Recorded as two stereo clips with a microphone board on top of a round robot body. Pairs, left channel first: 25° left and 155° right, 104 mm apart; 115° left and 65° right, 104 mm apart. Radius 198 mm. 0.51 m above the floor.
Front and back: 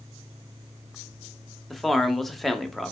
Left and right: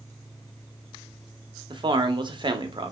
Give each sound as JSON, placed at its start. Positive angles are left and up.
{"t": 1.7, "sound": "a man speaking", "azimuth_deg": -65, "distance_m": 1.1}